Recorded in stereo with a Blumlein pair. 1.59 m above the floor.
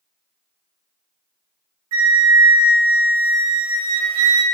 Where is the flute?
55° right, 0.7 m.